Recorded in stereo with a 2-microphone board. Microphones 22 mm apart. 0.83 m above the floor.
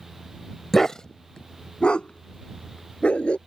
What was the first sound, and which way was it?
A dog barking, 15° left (ahead or behind).